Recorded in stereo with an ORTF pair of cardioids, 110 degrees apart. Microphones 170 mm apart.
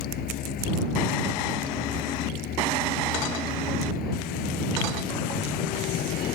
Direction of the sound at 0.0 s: 70° left.